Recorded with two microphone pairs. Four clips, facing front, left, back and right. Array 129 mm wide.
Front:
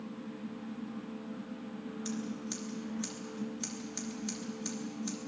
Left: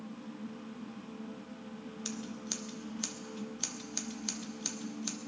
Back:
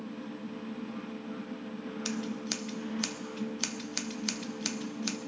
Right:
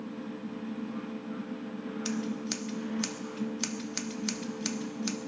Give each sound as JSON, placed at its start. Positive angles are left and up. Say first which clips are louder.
{"t": 2.0, "sound": "scissors", "louder": "right 9 dB, back 2 dB", "azimuth_deg": -160, "distance_m": 1.0}